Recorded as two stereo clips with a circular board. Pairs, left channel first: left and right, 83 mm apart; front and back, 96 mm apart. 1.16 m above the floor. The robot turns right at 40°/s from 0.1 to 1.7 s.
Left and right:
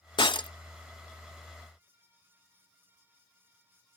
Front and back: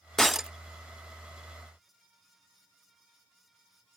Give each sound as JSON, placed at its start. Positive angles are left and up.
{"t": 0.2, "sound": "breaking glass", "azimuth_deg": 85}